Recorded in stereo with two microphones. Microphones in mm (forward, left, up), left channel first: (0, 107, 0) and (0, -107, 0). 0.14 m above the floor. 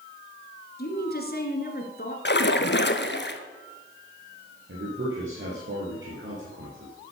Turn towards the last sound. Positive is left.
turn(degrees=-65)  # may be behind; listen again after turning